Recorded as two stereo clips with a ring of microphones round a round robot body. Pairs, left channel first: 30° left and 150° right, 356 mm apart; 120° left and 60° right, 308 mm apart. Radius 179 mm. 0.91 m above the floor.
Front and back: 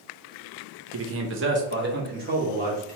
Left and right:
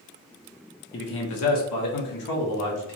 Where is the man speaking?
175° left, 0.7 m; by 3.0 s 140° left, 1.6 m.